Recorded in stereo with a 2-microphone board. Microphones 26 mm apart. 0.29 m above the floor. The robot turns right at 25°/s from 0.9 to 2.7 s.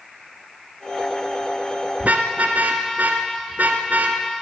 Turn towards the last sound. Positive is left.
turn(degrees=-75)  # may be behind; listen again after turning